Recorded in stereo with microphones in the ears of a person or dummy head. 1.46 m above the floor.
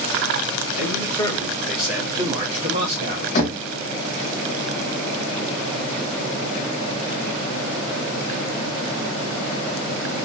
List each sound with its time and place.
0.8 s a man speaking: 35° left (ahead or behind), 1.2 m; by 3.2 s 60° right (ahead or behind), 1.2 m
3.4 s knocking: 45° left (ahead or behind), 0.9 m